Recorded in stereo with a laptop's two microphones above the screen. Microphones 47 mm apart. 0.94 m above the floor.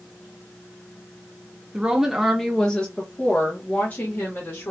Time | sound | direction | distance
1.7 | a woman speaking | 20° right (ahead or behind) | 0.8 m